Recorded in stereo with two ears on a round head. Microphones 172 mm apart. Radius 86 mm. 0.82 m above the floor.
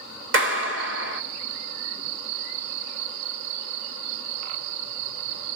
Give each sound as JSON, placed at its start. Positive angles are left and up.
{"t": 0.3, "sound": "a clap", "side_deg": -70, "distance_m": 2.5}